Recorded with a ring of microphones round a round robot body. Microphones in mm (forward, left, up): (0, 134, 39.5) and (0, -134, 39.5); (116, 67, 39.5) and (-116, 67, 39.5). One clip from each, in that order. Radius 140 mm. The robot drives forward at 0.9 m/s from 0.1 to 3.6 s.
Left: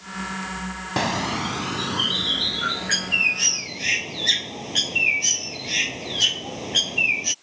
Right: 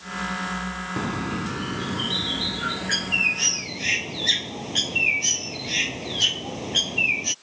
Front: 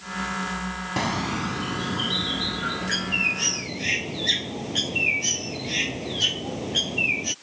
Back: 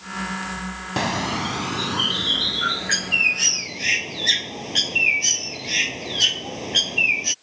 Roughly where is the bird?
Left.